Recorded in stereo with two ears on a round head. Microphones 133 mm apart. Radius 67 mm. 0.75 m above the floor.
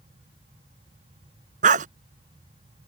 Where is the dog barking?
55° right (ahead or behind).